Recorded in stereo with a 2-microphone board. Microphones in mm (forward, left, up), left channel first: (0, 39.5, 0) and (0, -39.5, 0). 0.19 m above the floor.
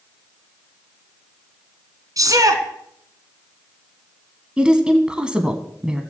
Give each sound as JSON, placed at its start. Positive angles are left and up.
{"t": 2.2, "sound": "a shout", "side_deg": -50, "distance_m": 2.0}
{"t": 4.6, "sound": "a woman speaking", "side_deg": -10, "distance_m": 1.4}